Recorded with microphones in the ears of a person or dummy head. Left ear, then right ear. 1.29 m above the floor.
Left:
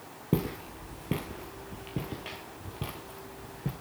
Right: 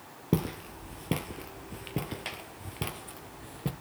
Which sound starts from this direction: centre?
Footsteps, at 0.3 s.